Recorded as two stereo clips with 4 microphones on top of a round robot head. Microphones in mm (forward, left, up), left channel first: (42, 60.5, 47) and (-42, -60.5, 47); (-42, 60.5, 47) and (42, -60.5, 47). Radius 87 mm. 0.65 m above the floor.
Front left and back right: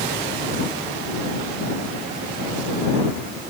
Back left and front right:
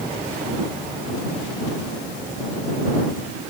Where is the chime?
No chime in this recording.